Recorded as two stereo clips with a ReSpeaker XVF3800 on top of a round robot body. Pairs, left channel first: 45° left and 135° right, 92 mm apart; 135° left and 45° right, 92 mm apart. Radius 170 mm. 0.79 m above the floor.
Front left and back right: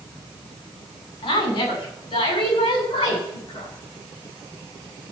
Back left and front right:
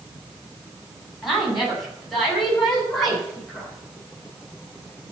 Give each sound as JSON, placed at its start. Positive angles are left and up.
{"t": 1.2, "sound": "a woman speaking", "azimuth_deg": 45, "distance_m": 7.5}